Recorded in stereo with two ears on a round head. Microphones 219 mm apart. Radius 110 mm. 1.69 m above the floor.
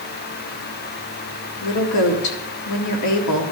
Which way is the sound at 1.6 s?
75° left (ahead or behind).